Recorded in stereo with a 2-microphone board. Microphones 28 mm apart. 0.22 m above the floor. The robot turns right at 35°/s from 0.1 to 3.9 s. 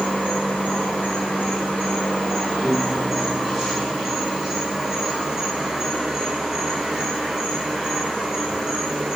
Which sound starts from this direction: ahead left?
An insect, at 0.0 s.